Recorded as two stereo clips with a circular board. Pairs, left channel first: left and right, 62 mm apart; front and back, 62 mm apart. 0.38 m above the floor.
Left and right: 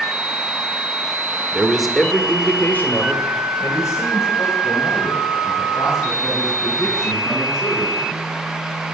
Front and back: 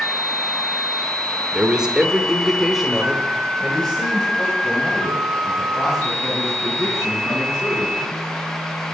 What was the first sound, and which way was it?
A man speaking, 130° right.